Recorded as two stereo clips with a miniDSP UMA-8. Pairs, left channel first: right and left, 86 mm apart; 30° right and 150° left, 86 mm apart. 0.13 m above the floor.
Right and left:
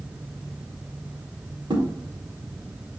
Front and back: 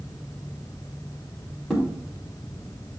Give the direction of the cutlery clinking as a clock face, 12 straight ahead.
I don't hear cutlery clinking.